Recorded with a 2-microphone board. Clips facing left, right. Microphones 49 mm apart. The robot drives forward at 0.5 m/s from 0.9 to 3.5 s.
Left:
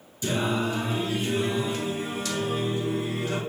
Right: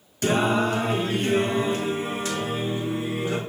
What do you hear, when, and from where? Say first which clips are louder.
0.2 s singing: right 5 dB; 65° right (ahead or behind), 0.9 m; by 3.4 s 25° right (ahead or behind), 1.8 m